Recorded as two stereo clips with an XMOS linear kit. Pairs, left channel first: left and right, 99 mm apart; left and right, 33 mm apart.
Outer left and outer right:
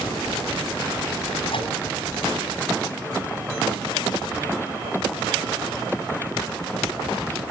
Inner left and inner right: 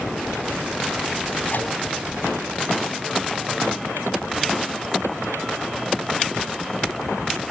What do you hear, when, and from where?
1.5 s a microwave: 70° left (ahead or behind), 5.5 m